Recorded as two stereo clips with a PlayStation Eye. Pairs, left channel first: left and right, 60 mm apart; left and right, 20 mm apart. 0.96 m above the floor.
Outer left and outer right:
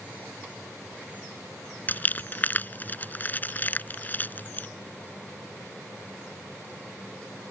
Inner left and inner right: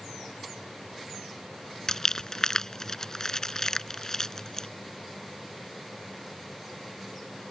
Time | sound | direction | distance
1.9 | crumpling | 30° left (ahead or behind) | ?